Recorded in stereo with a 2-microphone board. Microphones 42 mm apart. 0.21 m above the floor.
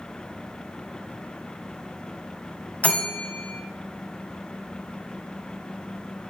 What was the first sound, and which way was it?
A bell, 35° left (ahead or behind).